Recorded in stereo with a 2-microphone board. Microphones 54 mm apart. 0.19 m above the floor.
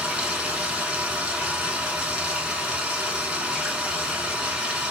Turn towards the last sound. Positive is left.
turn(degrees=-20)  # may be behind; listen again after turning